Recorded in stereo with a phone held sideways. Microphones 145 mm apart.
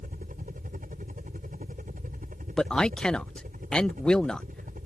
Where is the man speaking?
5° left (ahead or behind).